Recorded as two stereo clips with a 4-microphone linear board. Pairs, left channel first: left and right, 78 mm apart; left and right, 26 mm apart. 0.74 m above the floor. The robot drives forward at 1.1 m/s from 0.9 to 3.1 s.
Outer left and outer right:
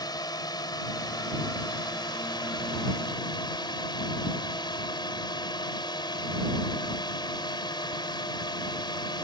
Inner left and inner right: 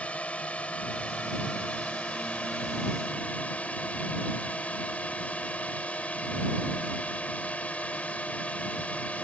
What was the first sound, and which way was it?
A drone, 60° left (ahead or behind).